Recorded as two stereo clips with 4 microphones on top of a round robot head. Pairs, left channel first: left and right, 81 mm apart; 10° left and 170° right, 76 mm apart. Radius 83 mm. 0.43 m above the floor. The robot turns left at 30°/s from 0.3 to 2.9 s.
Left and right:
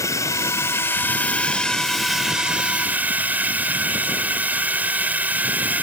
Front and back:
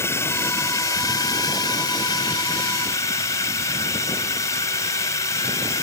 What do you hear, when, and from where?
0.0 s a drone: 50° left; by 5.8 s 25° right